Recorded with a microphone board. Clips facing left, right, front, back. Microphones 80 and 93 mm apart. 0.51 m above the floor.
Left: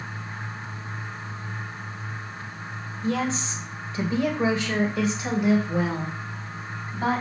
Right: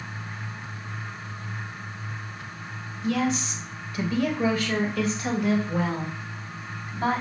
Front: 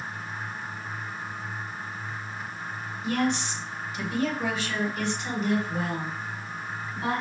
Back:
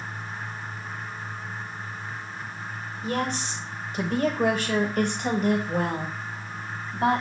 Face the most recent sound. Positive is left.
turn(degrees=170)